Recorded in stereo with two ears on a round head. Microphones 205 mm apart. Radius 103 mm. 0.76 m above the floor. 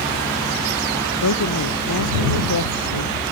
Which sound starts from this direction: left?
A woman speaking, at 1.2 s.